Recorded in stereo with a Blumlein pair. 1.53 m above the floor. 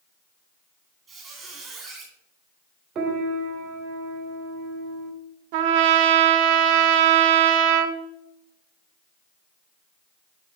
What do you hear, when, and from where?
1.1 s a squeak: 15° right, 1.9 m
3.0 s a piano: 30° right, 1.0 m
5.5 s a trumpet: 45° right, 0.7 m